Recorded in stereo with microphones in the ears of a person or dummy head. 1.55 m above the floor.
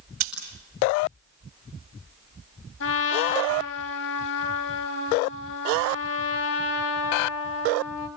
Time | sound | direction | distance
0.2 | scissors | 50° right (ahead or behind) | 8.5 m
2.8 | a trumpet | 70° left (ahead or behind) | 3.5 m